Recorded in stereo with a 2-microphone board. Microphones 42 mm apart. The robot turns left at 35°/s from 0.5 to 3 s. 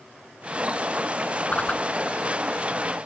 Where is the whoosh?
35° left (ahead or behind); by 1.8 s 20° left (ahead or behind).